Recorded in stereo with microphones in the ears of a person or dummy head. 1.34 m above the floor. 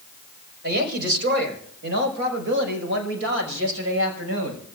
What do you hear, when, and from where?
0.6 s a woman speaking: 55° right (ahead or behind), 4.5 m; by 4.6 s 80° right, 6.5 m